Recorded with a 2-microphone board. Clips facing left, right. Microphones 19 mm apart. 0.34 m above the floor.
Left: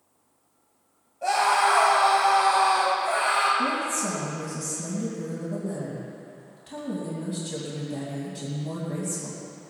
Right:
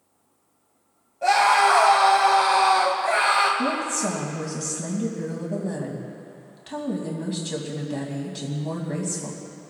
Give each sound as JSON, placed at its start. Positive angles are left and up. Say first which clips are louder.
{"t": 1.2, "sound": "a scream", "louder": "right 4 dB", "side_deg": -15, "distance_m": 1.9}
{"t": 3.6, "sound": "a woman speaking", "louder": "right 1 dB", "side_deg": -35, "distance_m": 2.5}